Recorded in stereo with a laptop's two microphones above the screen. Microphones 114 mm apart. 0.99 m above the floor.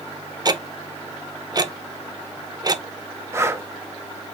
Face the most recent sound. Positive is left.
turn(degrees=-20)  # may be behind; listen again after turning